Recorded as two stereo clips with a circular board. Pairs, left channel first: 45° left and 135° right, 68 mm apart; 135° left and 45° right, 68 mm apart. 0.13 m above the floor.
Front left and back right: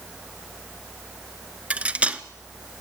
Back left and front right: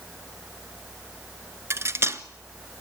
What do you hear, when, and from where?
1.7 s cutlery clinking: 70° right, 0.8 m